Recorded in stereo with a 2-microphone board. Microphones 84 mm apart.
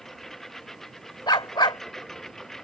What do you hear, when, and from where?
0.0 s a lawn mower: 5° left (ahead or behind)
1.3 s a dog barking: 65° left (ahead or behind)